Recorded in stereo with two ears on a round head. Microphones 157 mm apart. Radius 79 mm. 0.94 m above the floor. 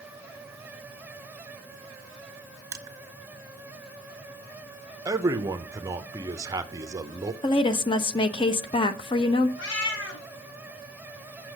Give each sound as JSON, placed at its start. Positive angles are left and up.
{"t": 2.7, "sound": "crushing", "side_deg": -20, "distance_m": 1.7}
{"t": 5.0, "sound": "a man speaking", "side_deg": -20, "distance_m": 0.8}
{"t": 7.4, "sound": "a woman speaking", "side_deg": 30, "distance_m": 1.0}
{"t": 9.6, "sound": "a cat meowing", "side_deg": 80, "distance_m": 3.5}